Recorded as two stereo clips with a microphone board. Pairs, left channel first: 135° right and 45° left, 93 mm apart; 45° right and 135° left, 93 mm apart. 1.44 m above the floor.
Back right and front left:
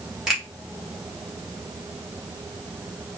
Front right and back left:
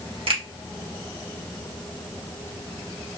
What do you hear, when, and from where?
0.3 s a finger snap: 130° left, 2 m